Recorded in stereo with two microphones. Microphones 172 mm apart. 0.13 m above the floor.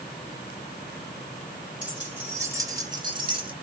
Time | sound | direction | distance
1.8 | keys jangling | 5° right (ahead or behind) | 1.9 m